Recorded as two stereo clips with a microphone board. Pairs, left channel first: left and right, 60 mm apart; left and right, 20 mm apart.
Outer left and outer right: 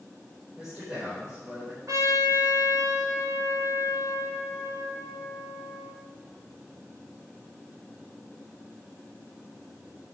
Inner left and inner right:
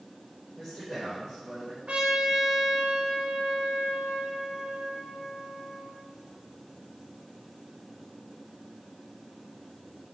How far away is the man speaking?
About 4 m.